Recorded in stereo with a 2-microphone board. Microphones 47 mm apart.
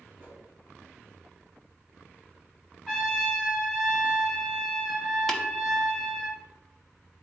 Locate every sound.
0.2 s a whoosh: 35° right (ahead or behind), 2.5 m
2.9 s a trumpet: 5° left (ahead or behind), 2.5 m
5.3 s tapping: 5° left (ahead or behind), 0.8 m